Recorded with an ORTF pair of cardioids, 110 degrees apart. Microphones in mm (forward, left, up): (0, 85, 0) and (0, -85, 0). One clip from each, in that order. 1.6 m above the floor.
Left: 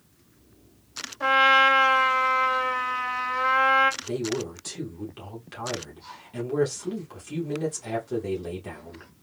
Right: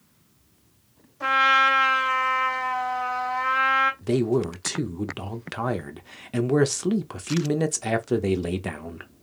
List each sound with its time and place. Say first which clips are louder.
1.2 s a trumpet: left 1 dB; 15° left, 1.6 m
4.0 s a man speaking: right 6 dB; 60° right, 0.9 m